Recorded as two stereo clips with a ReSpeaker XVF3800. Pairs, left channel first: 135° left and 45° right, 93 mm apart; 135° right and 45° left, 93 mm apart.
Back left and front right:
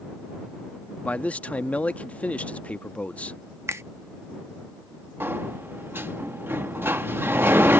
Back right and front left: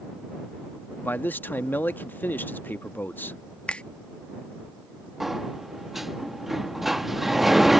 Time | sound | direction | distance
1.0 | a man speaking | 170° right | ?
3.7 | a finger snap | 70° right | ?
5.2 | a sliding door | 40° right | ?